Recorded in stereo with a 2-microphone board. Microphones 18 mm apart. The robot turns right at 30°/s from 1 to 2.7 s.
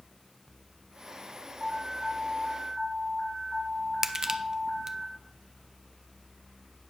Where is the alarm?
5° left, 3.5 m; by 5.0 s 40° left, 3.5 m.